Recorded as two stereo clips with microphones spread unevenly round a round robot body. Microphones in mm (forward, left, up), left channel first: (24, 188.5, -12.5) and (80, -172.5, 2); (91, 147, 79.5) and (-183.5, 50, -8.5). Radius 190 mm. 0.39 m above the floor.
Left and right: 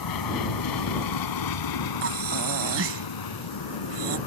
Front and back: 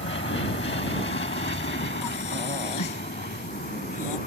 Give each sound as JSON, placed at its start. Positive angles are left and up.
{"t": 0.0, "sound": "an aircraft", "azimuth_deg": 75}
{"t": 2.0, "sound": "breathing", "azimuth_deg": -25}